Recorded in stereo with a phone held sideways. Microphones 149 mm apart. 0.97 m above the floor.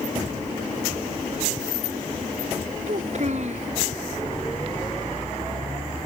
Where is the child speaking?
55° right (ahead or behind).